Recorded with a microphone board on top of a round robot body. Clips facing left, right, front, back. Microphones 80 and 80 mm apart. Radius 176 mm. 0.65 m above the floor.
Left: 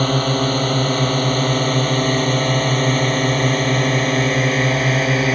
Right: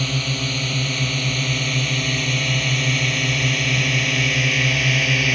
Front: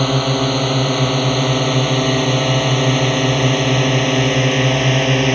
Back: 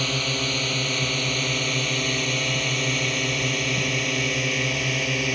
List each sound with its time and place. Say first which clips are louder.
0.0 s a drone: left 8 dB, front 11 dB; 45° left; by 5.4 s 35° left